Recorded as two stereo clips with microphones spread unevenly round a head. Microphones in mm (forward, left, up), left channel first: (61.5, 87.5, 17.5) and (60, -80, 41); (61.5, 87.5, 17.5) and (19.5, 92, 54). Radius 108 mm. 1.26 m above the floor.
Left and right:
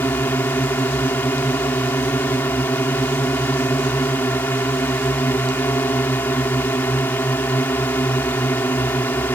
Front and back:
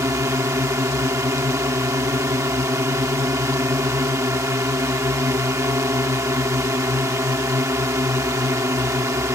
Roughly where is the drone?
Behind.